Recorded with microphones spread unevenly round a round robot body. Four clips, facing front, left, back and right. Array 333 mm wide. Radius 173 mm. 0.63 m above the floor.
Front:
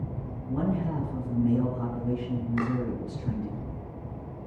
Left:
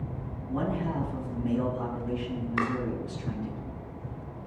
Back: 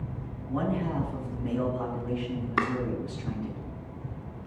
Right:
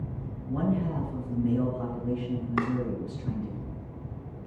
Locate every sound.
0.5 s a man speaking: 55° right, 5.5 m
2.6 s chopping: 110° right, 1.9 m